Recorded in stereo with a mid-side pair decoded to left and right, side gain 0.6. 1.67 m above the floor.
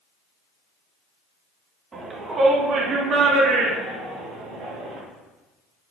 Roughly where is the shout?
Ahead right.